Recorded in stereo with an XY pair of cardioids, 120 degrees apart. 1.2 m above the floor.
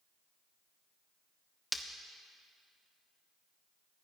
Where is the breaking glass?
Straight ahead, 1.3 m.